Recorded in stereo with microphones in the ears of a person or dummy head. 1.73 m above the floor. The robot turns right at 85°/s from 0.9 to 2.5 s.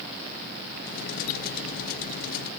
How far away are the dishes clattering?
No dishes clattering in this recording.